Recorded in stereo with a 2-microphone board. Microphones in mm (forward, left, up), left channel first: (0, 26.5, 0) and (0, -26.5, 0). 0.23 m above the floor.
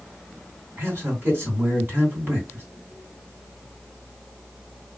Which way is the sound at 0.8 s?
45° right (ahead or behind).